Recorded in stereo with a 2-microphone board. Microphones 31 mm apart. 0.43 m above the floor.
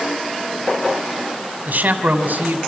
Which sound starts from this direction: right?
A man speaking, at 1.7 s.